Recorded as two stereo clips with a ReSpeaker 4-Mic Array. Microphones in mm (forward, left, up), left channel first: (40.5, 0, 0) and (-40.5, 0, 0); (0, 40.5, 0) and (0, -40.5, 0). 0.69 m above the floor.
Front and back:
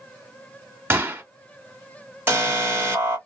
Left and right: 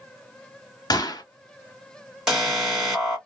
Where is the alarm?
165° right, 1.6 m.